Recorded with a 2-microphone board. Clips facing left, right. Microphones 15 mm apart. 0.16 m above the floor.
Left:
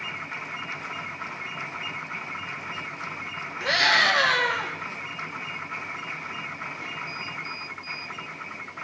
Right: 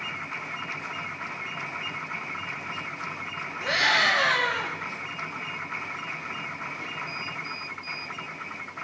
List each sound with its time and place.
3.6 s a scream: 65° left (ahead or behind), 6 m